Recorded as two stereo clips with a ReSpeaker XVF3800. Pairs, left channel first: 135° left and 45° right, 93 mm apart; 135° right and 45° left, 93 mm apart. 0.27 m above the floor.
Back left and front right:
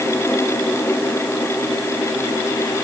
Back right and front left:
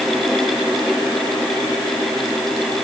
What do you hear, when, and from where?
Only background noise.